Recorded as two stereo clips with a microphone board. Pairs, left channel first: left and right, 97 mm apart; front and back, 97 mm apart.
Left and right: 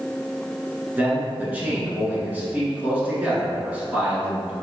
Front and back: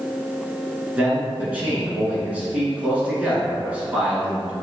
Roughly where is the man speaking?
Behind right.